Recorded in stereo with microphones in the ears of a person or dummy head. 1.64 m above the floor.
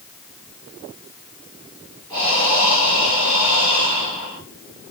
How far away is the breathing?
About 2.5 m.